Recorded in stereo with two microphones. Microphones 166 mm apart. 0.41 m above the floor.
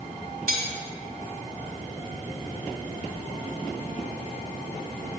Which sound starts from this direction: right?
Cutlery clinking, at 0.5 s.